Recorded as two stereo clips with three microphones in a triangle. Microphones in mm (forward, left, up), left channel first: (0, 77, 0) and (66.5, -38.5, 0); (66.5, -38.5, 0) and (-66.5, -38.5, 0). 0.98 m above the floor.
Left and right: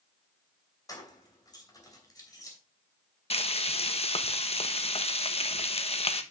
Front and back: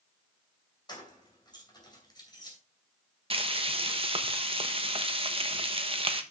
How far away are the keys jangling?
About 3 m.